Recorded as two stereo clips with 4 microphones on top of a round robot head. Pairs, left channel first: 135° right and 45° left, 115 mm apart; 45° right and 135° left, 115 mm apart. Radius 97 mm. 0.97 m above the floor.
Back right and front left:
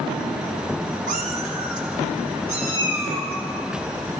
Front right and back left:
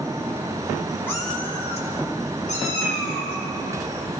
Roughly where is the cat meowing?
Ahead left.